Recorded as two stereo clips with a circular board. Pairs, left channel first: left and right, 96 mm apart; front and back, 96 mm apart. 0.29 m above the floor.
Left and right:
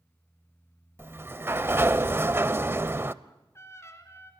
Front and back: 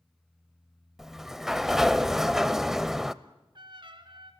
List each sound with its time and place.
1.0 s a sliding door: 100° right, 0.6 m
3.2 s a trumpet: 150° left, 1.9 m